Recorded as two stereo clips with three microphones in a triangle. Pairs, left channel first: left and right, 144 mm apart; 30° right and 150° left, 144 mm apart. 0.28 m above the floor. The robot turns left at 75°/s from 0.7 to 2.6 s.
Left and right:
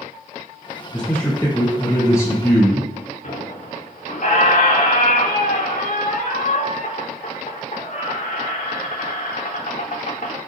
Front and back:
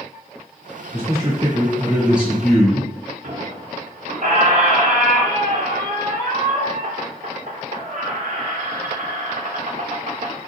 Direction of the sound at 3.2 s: 125° left.